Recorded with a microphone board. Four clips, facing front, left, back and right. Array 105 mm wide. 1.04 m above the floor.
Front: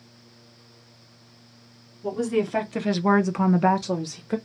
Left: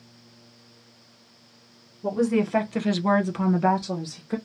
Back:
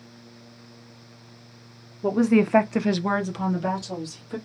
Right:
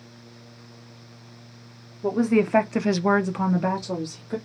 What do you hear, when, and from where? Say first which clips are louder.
2.0 s a woman speaking: right 2 dB, back 5 dB; 160° right, 0.8 m; by 4.4 s 5° left, 1.1 m